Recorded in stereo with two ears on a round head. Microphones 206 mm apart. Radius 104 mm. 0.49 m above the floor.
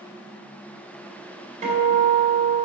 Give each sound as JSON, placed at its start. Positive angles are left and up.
{"t": 1.6, "sound": "a guitar", "side_deg": -35, "distance_m": 2.0}